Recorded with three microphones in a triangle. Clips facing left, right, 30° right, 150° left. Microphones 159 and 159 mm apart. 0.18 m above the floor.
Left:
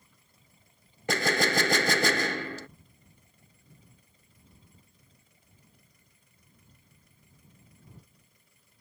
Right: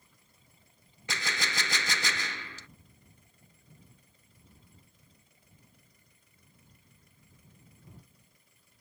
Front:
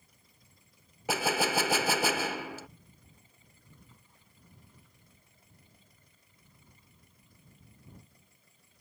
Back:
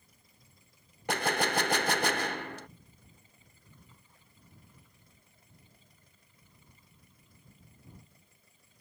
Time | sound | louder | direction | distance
1.1 | a gunshot | left 11 dB, front 1 dB | 55° left | ?